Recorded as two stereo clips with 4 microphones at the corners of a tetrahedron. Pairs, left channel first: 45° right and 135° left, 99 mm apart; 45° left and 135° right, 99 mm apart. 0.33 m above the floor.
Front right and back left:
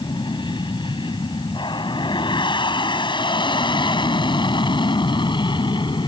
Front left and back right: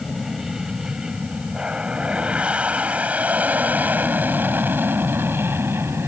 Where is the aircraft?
45° right; by 6.1 s 70° right.